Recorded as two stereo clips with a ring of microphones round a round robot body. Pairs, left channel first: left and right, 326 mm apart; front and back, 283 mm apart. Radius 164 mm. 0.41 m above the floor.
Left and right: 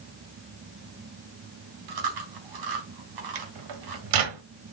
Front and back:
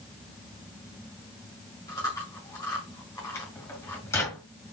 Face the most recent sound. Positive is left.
turn(degrees=-80)